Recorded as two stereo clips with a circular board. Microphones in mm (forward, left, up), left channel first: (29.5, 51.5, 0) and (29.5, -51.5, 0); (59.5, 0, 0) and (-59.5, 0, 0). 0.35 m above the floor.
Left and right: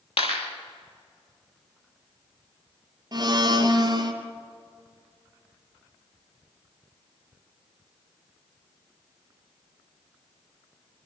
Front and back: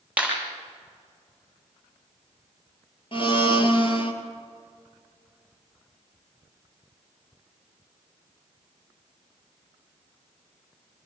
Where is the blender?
40° right, 3 m.